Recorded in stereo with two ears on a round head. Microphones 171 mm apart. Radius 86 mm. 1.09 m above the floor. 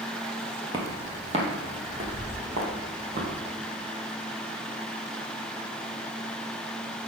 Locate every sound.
0.7 s footsteps: 25° right (ahead or behind), 1.3 m; by 3.3 s 45° right (ahead or behind), 3.5 m